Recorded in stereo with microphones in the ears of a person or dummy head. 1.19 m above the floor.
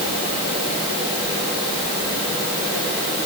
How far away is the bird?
I don't hear a bird.